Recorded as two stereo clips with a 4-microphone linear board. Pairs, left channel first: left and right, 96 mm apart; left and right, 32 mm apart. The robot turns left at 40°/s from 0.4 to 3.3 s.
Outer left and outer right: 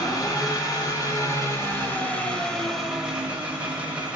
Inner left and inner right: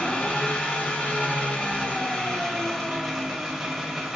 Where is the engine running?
95° left, 1.4 m; by 4.2 s 20° right, 1.4 m.